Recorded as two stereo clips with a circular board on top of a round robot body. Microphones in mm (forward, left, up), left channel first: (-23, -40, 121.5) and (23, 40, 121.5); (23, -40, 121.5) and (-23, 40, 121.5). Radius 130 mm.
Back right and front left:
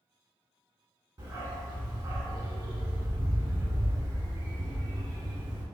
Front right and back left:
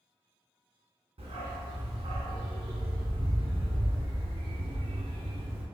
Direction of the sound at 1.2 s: 110° left.